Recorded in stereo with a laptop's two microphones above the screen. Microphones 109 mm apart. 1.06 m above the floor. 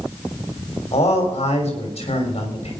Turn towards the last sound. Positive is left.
turn(degrees=65)  # may be behind; listen again after turning